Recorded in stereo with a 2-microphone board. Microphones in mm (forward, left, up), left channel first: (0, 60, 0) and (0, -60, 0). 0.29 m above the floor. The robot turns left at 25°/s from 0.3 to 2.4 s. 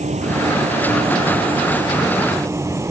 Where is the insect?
100° right; by 2.9 s 155° right.